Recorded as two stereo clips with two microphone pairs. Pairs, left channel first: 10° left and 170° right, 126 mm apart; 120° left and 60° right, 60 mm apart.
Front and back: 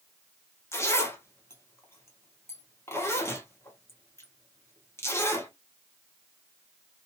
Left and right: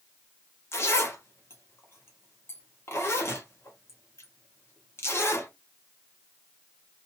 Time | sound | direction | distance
0.7 | a zipper | 80° left | 1.0 m